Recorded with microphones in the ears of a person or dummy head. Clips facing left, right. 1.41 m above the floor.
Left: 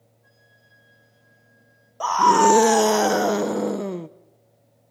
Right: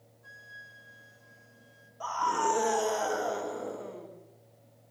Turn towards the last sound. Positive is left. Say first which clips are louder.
# left 13 dB
turn(degrees=85)